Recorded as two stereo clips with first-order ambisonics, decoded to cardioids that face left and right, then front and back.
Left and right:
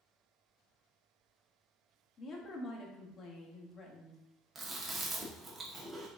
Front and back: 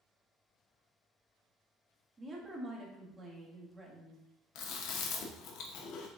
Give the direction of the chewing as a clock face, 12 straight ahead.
1 o'clock.